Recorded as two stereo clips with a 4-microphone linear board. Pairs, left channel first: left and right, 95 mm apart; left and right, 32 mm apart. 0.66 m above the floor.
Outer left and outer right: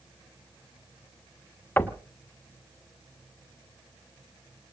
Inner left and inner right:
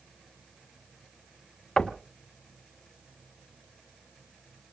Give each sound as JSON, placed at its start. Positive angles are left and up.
{"t": 1.8, "sound": "knocking", "side_deg": 20, "distance_m": 1.3}